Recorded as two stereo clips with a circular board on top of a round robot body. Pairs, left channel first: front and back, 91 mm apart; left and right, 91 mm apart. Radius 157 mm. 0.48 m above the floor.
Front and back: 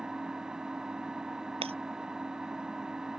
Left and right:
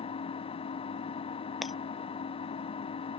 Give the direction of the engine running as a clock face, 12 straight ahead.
9 o'clock.